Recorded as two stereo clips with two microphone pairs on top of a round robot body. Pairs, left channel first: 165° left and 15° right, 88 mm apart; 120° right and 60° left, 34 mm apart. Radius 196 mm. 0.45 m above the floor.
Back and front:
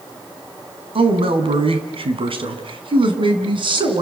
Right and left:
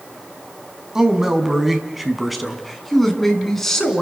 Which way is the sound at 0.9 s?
15° right.